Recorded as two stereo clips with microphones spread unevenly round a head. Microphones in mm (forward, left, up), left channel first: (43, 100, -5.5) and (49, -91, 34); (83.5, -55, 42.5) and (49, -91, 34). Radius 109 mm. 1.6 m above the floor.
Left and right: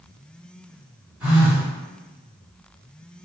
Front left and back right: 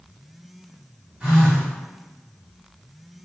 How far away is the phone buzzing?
About 1.1 m.